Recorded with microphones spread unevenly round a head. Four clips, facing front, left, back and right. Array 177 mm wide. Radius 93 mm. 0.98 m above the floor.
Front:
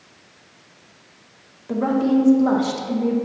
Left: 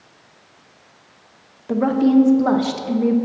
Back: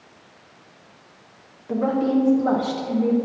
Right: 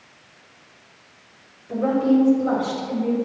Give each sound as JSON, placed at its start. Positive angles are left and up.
{"t": 1.7, "sound": "a woman speaking", "azimuth_deg": 80, "distance_m": 1.1}